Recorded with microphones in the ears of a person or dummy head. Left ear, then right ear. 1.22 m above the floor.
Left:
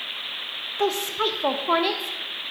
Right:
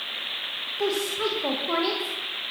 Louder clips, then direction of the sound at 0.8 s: Left 3 dB; 45° left (ahead or behind).